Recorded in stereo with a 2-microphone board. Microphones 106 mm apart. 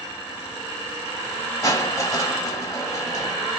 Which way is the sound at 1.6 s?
30° left (ahead or behind).